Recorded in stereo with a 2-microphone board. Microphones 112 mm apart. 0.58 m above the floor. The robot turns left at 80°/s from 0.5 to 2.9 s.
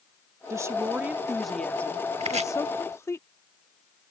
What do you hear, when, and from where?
0.5 s a woman speaking: 25° right (ahead or behind); by 3.2 s 25° left (ahead or behind)
2.2 s chopping: 75° right (ahead or behind)